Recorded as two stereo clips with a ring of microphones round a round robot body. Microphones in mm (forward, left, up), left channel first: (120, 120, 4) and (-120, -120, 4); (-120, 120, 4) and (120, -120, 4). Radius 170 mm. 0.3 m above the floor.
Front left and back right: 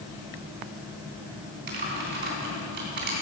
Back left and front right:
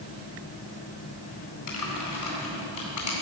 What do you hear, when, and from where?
1.7 s typing on a keyboard: 165° left, 3 m